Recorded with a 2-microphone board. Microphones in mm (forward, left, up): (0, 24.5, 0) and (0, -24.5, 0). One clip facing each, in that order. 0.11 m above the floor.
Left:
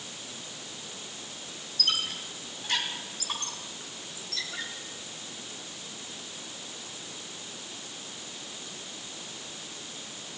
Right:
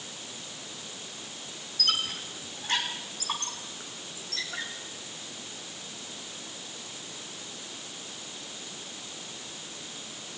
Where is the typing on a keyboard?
I don't hear typing on a keyboard.